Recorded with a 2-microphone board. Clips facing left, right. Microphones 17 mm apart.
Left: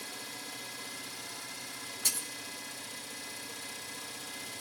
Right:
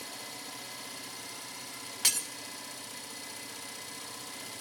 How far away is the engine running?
About 3.5 m.